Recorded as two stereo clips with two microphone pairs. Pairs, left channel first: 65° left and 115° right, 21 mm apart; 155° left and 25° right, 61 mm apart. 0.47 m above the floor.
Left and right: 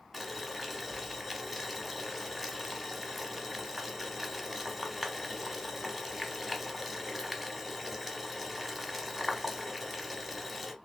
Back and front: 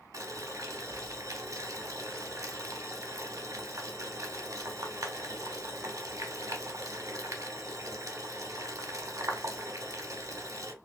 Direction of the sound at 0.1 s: 30° right.